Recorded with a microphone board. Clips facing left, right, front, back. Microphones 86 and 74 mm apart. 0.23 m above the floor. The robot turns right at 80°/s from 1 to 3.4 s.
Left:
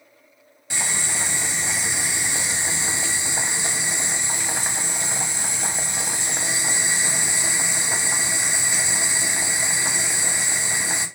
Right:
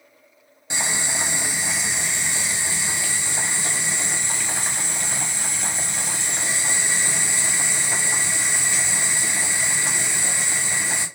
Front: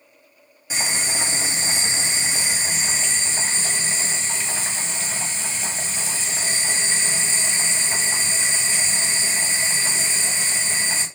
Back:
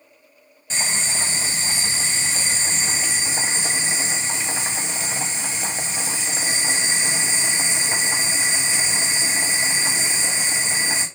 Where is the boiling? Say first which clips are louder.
Right 2 dB, even; 65° right, 0.9 m; by 11.1 s 130° left, 0.9 m.